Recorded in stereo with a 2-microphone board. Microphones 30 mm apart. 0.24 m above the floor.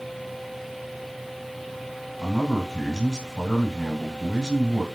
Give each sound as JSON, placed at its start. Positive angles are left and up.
{"t": 2.2, "sound": "a man speaking", "side_deg": -25, "distance_m": 1.1}